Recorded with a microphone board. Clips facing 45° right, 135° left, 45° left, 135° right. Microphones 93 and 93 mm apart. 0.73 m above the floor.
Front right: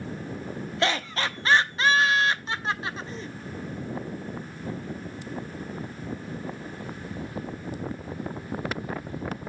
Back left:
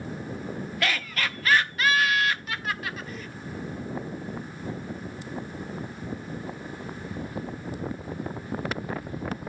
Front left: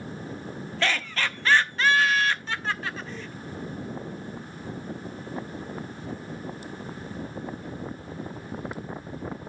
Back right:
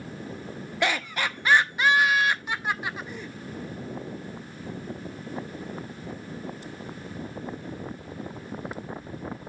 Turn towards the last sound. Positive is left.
turn(degrees=-75)